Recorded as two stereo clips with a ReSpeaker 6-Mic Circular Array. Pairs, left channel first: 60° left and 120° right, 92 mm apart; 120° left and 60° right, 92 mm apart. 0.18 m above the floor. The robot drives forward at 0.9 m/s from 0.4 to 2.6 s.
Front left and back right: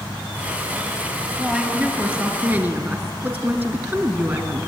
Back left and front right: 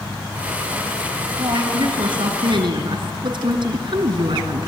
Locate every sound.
1.4 s a woman speaking: 40° right, 3 m; by 4.7 s 60° right, 2.5 m